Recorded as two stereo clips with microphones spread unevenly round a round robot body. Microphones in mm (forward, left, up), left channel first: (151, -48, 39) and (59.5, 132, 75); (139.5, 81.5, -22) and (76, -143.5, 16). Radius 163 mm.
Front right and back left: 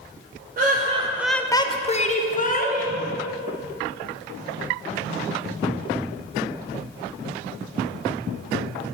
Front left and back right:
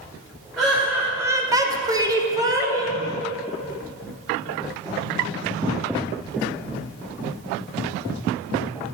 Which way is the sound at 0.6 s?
155° left.